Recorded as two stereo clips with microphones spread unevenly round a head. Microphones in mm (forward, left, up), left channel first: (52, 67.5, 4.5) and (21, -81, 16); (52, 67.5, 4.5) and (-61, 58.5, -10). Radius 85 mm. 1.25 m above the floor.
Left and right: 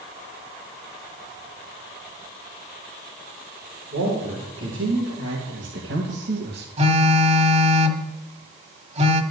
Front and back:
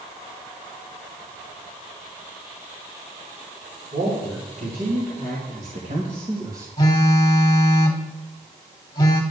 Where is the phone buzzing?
60° right, 1.6 m.